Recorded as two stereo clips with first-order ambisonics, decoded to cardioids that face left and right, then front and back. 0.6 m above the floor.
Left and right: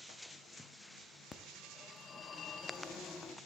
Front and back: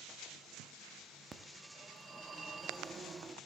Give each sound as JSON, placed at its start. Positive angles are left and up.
{"t": 1.3, "sound": "a phone ringing", "azimuth_deg": 130, "distance_m": 0.7}